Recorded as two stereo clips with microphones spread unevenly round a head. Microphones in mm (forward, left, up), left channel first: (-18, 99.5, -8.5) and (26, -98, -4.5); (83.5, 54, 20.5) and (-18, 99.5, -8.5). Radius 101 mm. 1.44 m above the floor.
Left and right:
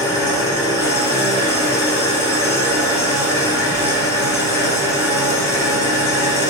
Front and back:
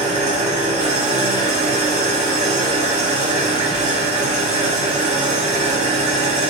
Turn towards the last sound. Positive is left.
turn(degrees=180)